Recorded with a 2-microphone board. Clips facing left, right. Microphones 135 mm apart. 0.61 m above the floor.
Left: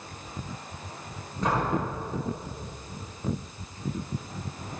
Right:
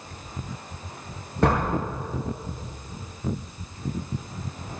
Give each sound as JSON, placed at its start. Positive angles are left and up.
{"t": 1.4, "sound": "a door slam", "side_deg": -80, "distance_m": 7.5}